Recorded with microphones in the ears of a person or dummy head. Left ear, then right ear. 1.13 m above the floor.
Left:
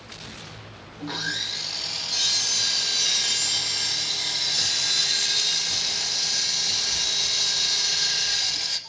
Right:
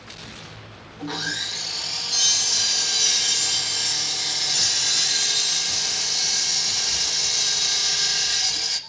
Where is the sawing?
5° left (ahead or behind), 1.2 m.